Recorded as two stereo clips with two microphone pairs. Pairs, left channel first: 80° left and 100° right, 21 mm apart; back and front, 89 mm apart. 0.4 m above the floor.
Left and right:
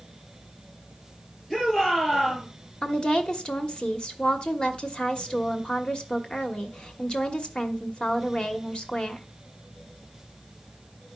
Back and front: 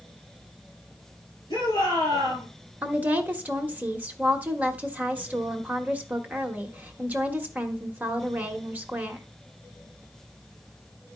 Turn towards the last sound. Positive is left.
turn(degrees=65)